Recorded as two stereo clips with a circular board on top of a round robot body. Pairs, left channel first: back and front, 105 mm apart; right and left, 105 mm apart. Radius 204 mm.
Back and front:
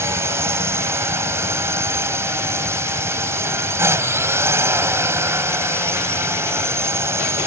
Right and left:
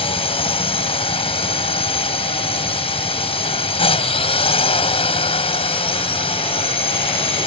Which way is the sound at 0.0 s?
65° right.